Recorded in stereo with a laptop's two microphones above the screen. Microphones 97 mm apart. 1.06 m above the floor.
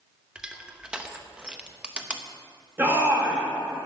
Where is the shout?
20° right (ahead or behind), 1.4 m.